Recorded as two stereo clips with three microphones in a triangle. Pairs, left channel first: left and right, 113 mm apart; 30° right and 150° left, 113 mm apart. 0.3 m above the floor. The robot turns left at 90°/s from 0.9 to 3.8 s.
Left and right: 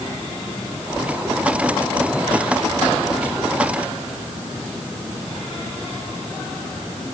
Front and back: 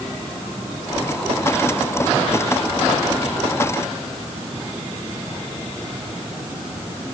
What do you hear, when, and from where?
Only background noise.